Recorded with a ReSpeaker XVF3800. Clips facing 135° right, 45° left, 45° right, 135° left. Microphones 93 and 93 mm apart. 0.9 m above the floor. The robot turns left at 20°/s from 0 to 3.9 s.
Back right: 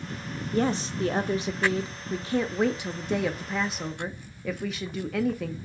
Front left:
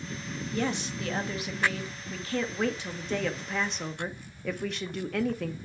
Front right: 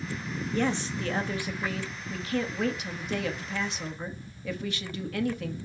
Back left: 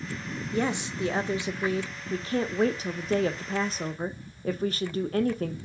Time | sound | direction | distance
0.5 | a woman speaking | 155° right | 0.8 m